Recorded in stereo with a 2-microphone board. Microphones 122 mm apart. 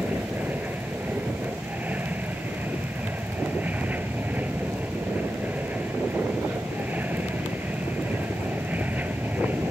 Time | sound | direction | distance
0.0 | an aircraft | 15° right (ahead or behind) | ?